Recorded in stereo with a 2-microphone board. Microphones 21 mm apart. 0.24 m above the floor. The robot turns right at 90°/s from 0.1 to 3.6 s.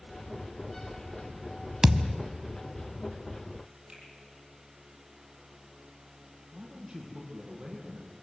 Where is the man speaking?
25° right (ahead or behind), 6 m.